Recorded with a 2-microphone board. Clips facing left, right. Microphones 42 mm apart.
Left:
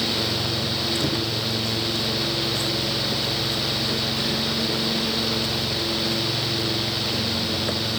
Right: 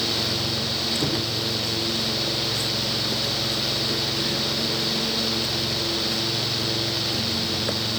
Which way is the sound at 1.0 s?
35° right (ahead or behind).